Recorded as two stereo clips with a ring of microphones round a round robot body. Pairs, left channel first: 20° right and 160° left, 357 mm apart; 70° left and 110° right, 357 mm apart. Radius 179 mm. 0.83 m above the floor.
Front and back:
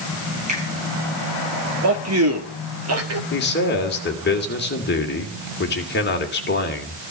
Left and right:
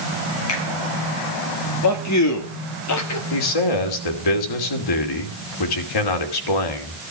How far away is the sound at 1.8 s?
About 1.9 m.